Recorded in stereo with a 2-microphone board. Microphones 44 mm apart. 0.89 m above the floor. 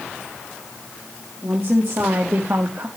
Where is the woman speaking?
55° right (ahead or behind), 2 m.